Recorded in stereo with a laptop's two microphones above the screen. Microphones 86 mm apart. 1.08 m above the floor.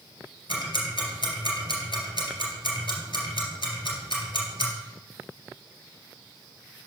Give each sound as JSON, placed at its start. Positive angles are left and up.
{"t": 0.5, "sound": "ticking", "side_deg": 75, "distance_m": 2.0}